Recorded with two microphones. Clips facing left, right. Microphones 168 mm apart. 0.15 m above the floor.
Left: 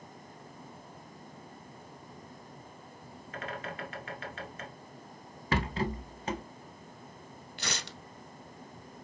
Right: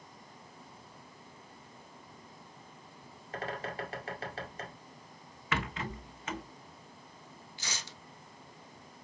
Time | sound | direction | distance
3.3 | a bird | 35° right (ahead or behind) | 1.4 m
5.5 | a rattle | 35° left (ahead or behind) | 0.6 m
7.6 | tearing paper | 70° left (ahead or behind) | 0.6 m